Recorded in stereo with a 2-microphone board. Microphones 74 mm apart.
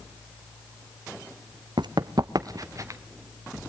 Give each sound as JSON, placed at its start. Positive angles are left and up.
{"t": 1.8, "sound": "running footsteps", "side_deg": -80, "distance_m": 0.8}